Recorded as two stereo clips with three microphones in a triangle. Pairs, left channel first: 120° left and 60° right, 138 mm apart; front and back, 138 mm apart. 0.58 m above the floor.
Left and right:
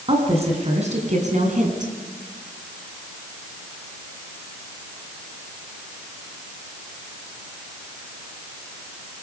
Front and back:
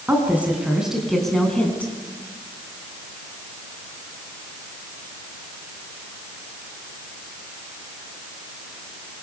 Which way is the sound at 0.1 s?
105° right.